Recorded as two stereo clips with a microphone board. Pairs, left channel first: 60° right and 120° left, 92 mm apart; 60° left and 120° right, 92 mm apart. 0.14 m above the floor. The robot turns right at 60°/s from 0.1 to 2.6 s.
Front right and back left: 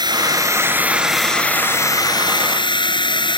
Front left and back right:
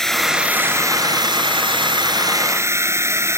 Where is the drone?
145° left; by 3.4 s 65° right.